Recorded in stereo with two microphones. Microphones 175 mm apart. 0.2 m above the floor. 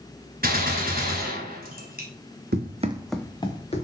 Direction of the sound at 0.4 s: 60° right (ahead or behind).